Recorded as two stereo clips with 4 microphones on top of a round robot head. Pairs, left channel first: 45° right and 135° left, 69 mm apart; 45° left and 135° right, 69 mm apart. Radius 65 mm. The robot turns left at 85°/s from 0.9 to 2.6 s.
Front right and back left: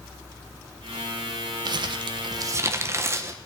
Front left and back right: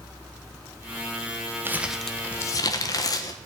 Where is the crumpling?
165° left, 1.2 m; by 3.4 s 85° left, 1.2 m.